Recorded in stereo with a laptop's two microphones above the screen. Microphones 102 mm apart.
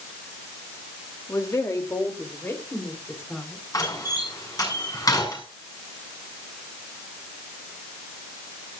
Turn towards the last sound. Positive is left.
turn(degrees=35)  # may be behind; listen again after turning